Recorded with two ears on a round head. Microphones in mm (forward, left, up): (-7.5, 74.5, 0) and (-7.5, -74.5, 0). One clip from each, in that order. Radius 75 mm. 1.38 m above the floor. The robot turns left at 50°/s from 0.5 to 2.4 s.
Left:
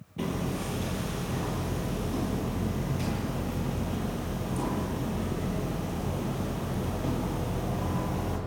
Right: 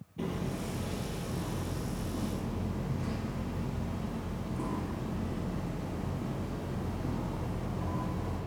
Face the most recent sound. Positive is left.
turn(degrees=55)